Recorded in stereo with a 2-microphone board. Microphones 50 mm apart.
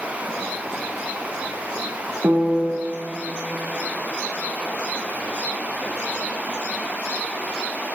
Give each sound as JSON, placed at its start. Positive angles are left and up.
{"t": 2.2, "sound": "a piano", "side_deg": -55, "distance_m": 1.5}